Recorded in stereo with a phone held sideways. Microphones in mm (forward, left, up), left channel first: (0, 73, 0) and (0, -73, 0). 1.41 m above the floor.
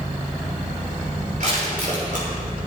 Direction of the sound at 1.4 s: 70° right (ahead or behind).